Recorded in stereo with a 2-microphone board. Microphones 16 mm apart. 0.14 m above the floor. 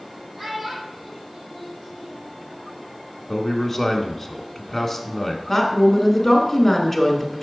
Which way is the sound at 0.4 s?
20° right (ahead or behind).